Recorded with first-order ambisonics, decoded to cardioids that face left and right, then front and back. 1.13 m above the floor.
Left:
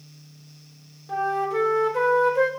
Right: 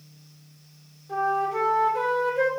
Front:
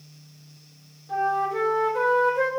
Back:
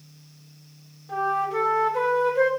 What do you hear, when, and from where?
1.1 s a flute: 100° left, 0.8 m